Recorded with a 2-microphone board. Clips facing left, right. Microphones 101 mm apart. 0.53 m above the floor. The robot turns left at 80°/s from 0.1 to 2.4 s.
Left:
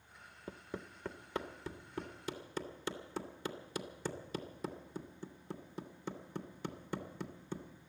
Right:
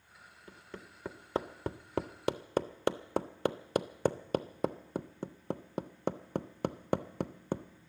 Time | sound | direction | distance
0.5 | hammering | 35° left (ahead or behind) | 0.5 m